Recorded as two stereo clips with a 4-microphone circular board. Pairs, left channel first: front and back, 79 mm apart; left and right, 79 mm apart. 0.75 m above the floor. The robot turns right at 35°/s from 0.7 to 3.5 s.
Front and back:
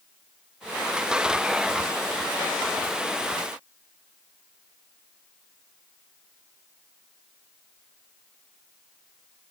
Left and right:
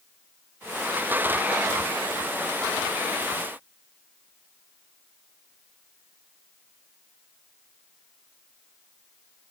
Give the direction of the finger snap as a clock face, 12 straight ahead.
I don't hear a finger snap.